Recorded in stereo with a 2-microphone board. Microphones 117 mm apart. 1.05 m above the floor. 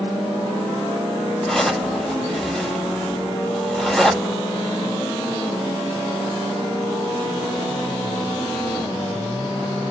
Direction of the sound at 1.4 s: Centre (ahead or behind).